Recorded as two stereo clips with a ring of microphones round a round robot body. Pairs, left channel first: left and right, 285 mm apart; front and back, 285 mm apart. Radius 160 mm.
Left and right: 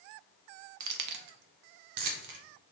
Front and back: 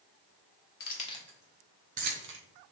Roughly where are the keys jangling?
Ahead right.